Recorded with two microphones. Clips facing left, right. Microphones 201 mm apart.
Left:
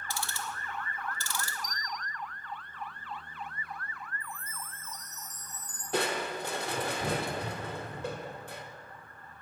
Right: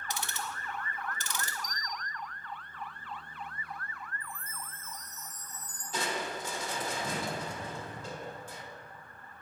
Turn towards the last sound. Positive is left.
turn(degrees=65)  # may be behind; listen again after turning